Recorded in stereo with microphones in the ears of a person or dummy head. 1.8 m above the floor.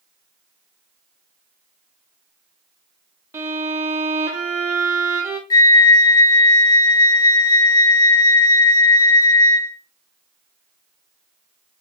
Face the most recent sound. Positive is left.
turn(degrees=20)  # may be behind; listen again after turning